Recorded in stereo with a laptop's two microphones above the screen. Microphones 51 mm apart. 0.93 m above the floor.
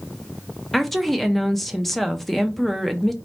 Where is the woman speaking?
5° left (ahead or behind), 0.5 m.